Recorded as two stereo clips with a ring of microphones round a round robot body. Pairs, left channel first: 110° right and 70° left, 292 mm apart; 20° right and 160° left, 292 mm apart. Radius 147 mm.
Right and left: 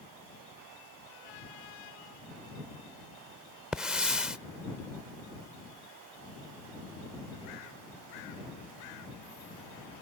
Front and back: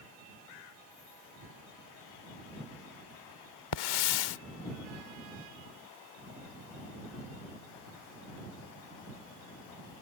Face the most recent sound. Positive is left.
turn(degrees=-20)